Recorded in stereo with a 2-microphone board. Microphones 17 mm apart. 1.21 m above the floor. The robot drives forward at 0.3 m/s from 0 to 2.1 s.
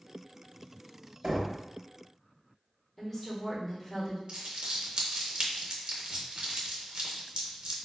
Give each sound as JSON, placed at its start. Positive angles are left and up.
{"t": 1.2, "sound": "knocking", "side_deg": -65, "distance_m": 1.1}
{"t": 3.0, "sound": "a woman speaking", "side_deg": 5, "distance_m": 1.3}
{"t": 4.3, "sound": "crumpling", "side_deg": -60, "distance_m": 0.7}